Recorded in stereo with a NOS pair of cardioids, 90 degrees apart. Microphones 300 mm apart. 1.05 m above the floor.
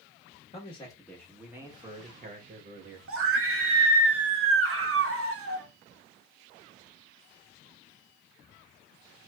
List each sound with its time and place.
0.5 s a man speaking: 20° left, 1.2 m; by 3.0 s 45° right, 1.3 m
3.1 s a scream: 50° right, 1.0 m